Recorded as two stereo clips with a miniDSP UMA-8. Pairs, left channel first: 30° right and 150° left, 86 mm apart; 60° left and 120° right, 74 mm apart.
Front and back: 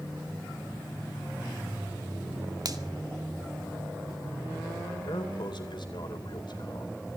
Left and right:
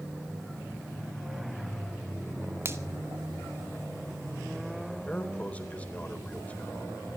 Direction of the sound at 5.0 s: 10° right.